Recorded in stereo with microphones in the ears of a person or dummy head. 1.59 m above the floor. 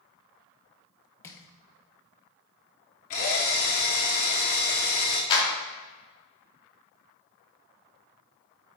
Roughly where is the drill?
Left.